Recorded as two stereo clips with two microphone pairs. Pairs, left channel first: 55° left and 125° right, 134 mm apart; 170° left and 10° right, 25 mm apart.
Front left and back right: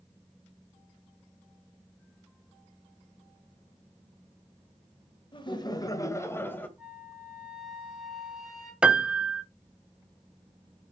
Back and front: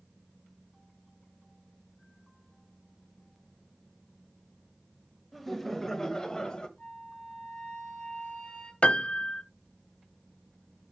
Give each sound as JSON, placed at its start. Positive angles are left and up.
{"t": 5.3, "sound": "laughter", "azimuth_deg": 85, "distance_m": 1.2}
{"t": 6.8, "sound": "a flute", "azimuth_deg": 145, "distance_m": 2.5}
{"t": 8.8, "sound": "a piano", "azimuth_deg": 155, "distance_m": 0.6}